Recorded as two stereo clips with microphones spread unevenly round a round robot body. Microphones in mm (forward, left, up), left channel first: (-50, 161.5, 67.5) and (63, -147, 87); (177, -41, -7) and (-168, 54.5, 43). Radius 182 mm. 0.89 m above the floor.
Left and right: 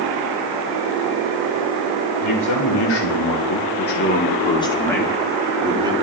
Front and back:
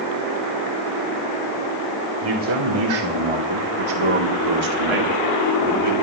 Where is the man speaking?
140° left, 2.5 m; by 5.9 s 145° right, 2 m.